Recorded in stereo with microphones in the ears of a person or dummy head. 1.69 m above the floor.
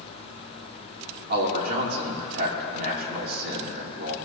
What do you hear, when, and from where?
1.3 s a man speaking: 60° right (ahead or behind), 3 m